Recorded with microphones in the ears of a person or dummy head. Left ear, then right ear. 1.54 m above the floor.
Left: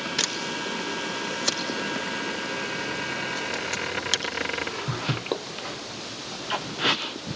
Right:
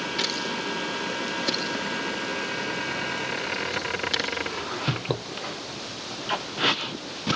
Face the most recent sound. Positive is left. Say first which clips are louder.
# left 1 dB
turn(degrees=50)  # may be behind; listen again after turning